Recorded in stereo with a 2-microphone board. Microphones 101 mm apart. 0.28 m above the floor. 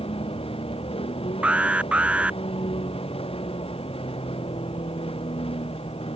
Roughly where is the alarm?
Centre.